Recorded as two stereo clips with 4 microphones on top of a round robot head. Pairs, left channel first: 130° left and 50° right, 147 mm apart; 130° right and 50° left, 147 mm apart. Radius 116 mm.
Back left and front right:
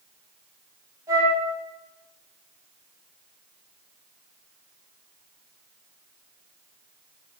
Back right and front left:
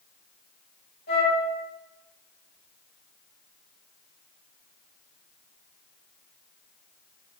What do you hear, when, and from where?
1.1 s a flute: 120° right, 5.5 m